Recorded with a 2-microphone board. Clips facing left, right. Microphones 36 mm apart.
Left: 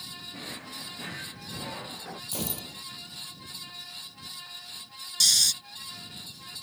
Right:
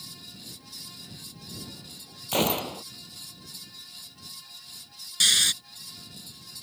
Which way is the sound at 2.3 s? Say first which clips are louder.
Right 13 dB; 65° right (ahead or behind).